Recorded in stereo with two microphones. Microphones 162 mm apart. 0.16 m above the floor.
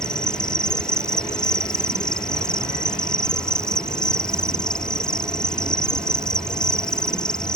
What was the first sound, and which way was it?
An insect, 5° left (ahead or behind).